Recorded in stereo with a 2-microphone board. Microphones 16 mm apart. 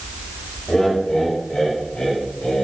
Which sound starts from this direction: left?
Laughter, at 0.7 s.